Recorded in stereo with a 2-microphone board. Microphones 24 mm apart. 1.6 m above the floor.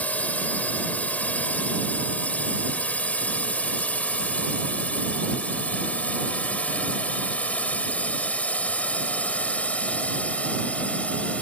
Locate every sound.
0.0 s a drone: 80° left; by 11.4 s 60° left (ahead or behind)